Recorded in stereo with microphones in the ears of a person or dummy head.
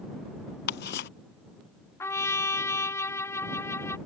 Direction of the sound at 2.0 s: 15° left (ahead or behind).